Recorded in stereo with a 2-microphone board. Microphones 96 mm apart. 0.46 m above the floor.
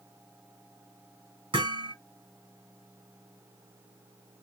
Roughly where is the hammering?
Right.